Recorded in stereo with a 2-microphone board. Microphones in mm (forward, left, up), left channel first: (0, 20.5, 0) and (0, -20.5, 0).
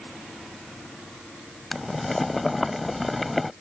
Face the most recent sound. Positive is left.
turn(degrees=-5)  # may be behind; listen again after turning